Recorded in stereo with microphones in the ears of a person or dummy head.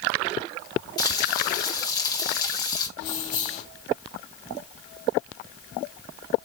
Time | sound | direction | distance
1.0 | frying | 30° left (ahead or behind) | 1.7 m
3.0 | keys jangling | 45° left (ahead or behind) | 0.9 m